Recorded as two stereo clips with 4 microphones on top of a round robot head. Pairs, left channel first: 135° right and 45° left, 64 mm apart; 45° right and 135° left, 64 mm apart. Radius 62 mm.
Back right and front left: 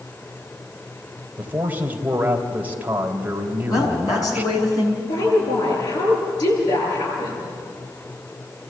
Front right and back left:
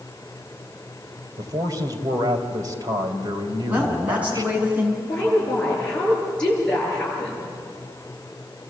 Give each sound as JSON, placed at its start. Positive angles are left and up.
{"t": 1.4, "sound": "a man speaking", "azimuth_deg": 115, "distance_m": 3.0}
{"t": 3.7, "sound": "a woman speaking", "azimuth_deg": -155, "distance_m": 6.5}
{"t": 5.0, "sound": "a woman speaking", "azimuth_deg": -125, "distance_m": 9.5}